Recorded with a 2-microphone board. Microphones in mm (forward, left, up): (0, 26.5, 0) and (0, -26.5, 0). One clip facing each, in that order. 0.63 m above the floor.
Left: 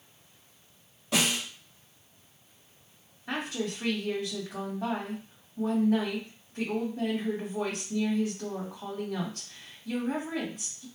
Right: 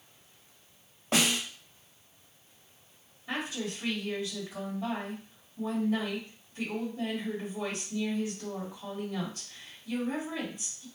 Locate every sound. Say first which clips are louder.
1.1 s a snare drum: even; 40° right (ahead or behind), 1.5 m
3.3 s a woman speaking: left 2 dB; 60° left (ahead or behind), 1.5 m